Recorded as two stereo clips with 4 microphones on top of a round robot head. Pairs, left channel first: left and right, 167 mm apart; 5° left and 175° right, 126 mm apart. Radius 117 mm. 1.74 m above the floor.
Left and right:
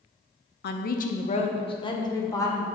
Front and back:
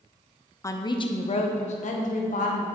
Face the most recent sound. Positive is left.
turn(degrees=15)